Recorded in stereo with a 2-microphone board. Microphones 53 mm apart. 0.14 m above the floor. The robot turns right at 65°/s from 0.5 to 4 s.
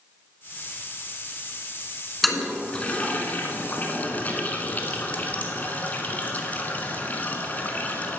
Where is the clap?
I don't hear a clap.